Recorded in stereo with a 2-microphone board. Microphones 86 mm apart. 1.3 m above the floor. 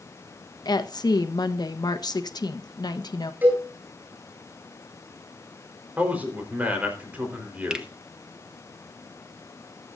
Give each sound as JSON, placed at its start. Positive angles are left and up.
{"t": 0.7, "sound": "a woman speaking", "side_deg": 50, "distance_m": 1.1}
{"t": 3.4, "sound": "a cowbell", "side_deg": -25, "distance_m": 8.0}
{"t": 6.0, "sound": "a man speaking", "side_deg": -20, "distance_m": 4.0}
{"t": 7.7, "sound": "a finger snap", "side_deg": -10, "distance_m": 1.3}